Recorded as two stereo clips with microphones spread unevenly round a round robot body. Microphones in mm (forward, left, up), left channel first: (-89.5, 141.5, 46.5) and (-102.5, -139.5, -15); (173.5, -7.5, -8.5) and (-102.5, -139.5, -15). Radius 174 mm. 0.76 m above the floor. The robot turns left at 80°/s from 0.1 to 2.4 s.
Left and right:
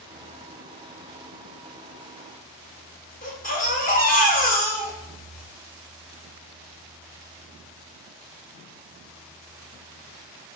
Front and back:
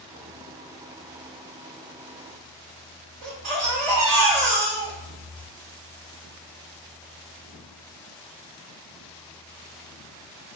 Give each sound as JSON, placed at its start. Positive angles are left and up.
{"t": 3.2, "sound": "a baby crying", "azimuth_deg": 155, "distance_m": 1.5}